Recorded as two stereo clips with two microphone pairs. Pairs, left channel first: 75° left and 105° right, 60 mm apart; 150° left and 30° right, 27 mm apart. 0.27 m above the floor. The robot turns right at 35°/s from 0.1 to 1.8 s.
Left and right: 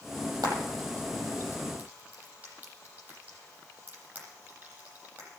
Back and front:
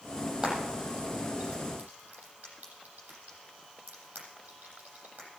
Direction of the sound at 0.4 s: 90° right.